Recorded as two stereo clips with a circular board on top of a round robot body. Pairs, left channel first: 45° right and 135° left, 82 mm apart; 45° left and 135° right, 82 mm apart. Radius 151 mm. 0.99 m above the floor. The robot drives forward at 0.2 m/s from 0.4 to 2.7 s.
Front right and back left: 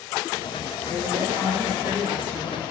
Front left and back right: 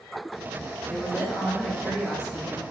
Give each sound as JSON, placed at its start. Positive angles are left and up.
{"t": 0.9, "sound": "a woman speaking", "azimuth_deg": 140, "distance_m": 1.7}